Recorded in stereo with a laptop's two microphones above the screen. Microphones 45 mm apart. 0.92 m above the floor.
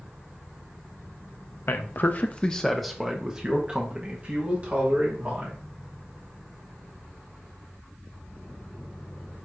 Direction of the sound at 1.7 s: 60° left (ahead or behind).